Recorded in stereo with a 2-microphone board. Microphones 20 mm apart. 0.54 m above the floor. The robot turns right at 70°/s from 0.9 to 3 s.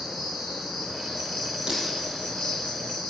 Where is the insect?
60° right, 9.5 m; by 3.1 s 90° left, 9.5 m.